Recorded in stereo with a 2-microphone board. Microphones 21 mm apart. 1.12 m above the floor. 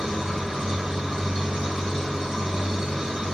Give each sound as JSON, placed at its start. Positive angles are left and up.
{"t": 0.0, "sound": "an engine running", "side_deg": -30, "distance_m": 6.0}